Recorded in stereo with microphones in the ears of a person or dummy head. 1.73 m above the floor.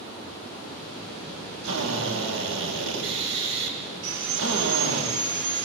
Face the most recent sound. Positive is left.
turn(degrees=-70)  # may be behind; listen again after turning